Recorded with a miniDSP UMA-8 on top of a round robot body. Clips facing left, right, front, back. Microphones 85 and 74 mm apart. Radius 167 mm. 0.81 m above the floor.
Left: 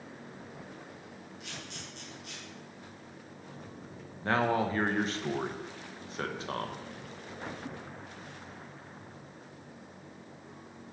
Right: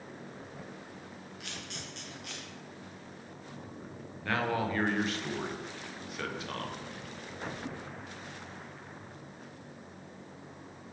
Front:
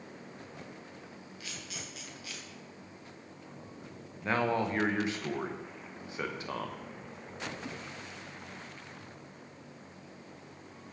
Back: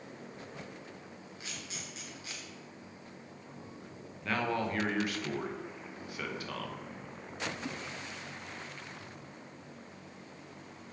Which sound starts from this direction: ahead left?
A man speaking, at 4.2 s.